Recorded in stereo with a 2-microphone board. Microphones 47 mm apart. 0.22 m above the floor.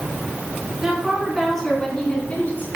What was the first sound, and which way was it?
A woman speaking, 15° right (ahead or behind).